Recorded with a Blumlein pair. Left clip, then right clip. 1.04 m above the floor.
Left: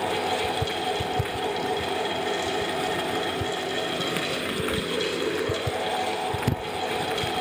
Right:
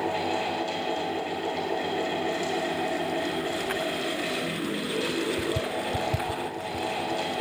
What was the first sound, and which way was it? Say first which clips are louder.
A fan: left 2 dB; 50° left.